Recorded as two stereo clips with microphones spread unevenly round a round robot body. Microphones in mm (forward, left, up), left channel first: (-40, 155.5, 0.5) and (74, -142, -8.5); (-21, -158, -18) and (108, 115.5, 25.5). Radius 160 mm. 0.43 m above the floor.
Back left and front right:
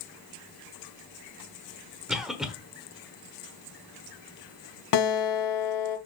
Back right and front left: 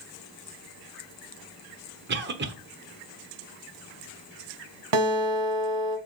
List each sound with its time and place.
2.1 s a cough: 15° left, 1.1 m
4.9 s a guitar: 80° left, 1.6 m